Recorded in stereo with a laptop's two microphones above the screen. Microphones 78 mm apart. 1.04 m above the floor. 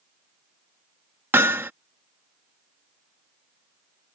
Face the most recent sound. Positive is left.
turn(degrees=-30)  # may be behind; listen again after turning